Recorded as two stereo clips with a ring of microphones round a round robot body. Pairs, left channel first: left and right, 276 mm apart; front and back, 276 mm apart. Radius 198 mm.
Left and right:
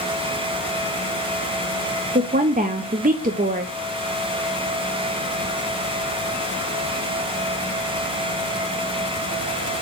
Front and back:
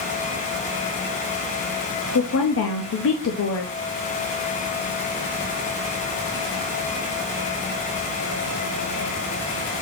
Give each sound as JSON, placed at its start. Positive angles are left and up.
{"t": 2.1, "sound": "a woman speaking", "azimuth_deg": -30, "distance_m": 0.7}